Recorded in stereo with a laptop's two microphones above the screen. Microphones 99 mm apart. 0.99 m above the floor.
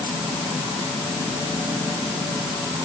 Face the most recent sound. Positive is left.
No sound to turn to.